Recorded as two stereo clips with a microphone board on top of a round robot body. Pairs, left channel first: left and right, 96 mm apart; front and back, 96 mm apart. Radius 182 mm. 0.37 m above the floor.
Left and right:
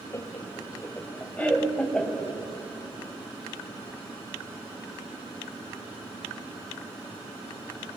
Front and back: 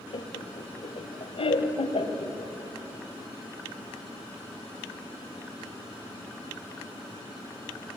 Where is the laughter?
25° left, 2.5 m; by 2.3 s 10° left, 3 m.